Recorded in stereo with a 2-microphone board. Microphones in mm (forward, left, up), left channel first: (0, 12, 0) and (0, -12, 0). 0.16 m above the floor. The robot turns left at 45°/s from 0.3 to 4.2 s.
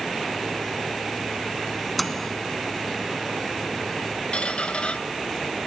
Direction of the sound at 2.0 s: 5° left (ahead or behind).